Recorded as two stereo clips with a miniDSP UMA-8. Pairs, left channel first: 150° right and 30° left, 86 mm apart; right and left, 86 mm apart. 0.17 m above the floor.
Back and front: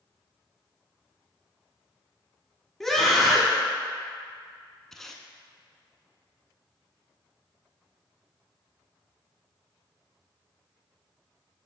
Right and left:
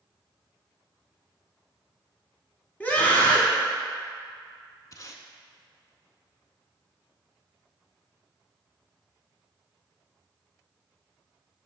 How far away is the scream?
About 1.0 m.